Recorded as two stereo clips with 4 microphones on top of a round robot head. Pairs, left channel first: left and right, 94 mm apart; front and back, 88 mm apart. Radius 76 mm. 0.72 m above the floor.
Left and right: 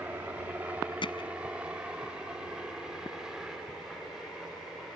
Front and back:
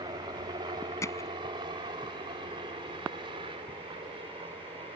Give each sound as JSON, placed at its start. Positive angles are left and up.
{"t": 0.0, "sound": "a helicopter", "azimuth_deg": -160}
{"t": 1.0, "sound": "hammering", "azimuth_deg": 55}